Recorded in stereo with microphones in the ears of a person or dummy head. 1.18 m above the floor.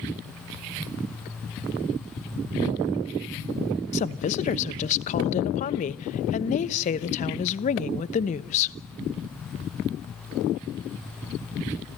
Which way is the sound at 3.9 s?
35° left (ahead or behind).